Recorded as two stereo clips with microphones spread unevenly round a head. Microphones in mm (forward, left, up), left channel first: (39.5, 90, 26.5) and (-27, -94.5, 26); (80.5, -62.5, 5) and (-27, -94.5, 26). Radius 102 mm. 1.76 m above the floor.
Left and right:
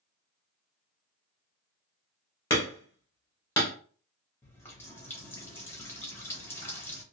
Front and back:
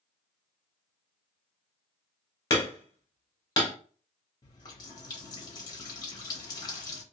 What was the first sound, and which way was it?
Hammering, 25° left.